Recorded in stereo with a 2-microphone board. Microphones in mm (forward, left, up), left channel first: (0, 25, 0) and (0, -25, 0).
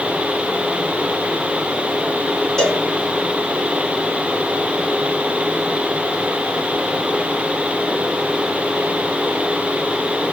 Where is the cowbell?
15° left (ahead or behind), 3.5 m.